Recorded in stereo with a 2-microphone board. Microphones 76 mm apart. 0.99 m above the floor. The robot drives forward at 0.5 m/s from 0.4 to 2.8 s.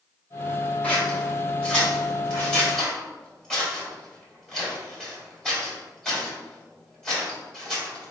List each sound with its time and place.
0.8 s scissors: 20° left (ahead or behind), 1.4 m; by 8.1 s 10° left (ahead or behind), 2.5 m